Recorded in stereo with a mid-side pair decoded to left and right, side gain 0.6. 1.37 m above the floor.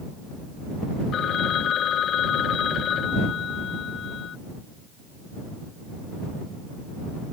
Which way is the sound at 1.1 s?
50° left.